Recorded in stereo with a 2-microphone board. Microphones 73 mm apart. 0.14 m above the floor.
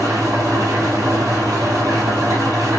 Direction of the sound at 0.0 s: 55° right (ahead or behind).